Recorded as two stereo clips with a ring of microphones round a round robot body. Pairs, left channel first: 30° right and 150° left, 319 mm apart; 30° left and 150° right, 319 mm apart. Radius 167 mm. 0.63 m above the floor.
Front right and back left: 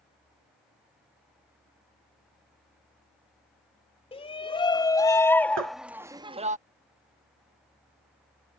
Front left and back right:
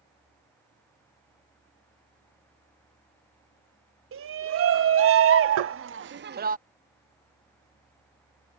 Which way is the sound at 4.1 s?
100° right.